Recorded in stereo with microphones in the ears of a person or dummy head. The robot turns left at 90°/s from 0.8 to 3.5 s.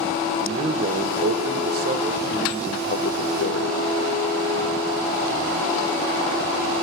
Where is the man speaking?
40° right, 0.8 m; by 3.8 s 80° left, 0.8 m.